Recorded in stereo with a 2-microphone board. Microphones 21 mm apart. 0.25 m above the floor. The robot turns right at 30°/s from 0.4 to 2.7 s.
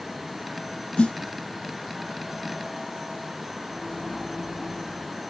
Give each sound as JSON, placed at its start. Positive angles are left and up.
{"t": 1.0, "sound": "a snare drum", "side_deg": 55, "distance_m": 0.7}
{"t": 3.6, "sound": "a microwave", "side_deg": 5, "distance_m": 1.7}